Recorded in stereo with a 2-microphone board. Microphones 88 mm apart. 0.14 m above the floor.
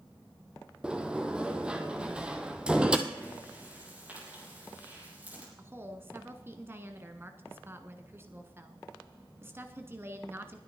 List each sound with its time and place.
0.8 s a sliding door: 10° right (ahead or behind), 1.1 m
3.1 s breathing: 20° right (ahead or behind), 5 m
5.6 s a woman speaking: 25° right (ahead or behind), 1.2 m